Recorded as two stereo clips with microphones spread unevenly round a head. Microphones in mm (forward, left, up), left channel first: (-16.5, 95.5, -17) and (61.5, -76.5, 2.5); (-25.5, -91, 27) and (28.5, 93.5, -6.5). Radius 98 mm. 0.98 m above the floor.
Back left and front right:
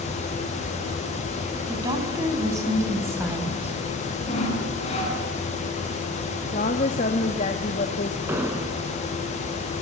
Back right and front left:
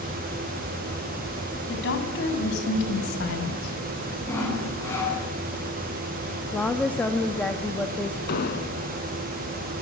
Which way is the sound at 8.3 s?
140° right.